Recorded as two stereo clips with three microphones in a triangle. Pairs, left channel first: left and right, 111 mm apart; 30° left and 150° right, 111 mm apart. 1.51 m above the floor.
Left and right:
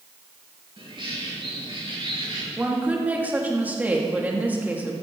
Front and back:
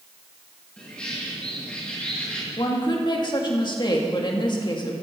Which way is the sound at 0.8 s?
50° right.